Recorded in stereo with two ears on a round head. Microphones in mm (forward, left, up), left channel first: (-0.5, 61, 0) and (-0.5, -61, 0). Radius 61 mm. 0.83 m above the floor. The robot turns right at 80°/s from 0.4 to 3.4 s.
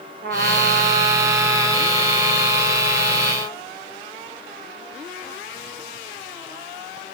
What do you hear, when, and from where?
0.2 s a trumpet: 85° right, 0.9 m; by 3.6 s 155° left, 0.9 m